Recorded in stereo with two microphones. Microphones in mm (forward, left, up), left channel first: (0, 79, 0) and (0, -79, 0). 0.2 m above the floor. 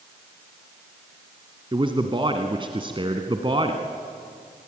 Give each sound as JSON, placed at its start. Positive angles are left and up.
{"t": 1.7, "sound": "a man speaking", "side_deg": -35, "distance_m": 1.5}